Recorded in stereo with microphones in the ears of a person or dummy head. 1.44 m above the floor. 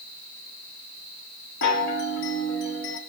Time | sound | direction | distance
1.6 | a chime | 60° left (ahead or behind) | 1.2 m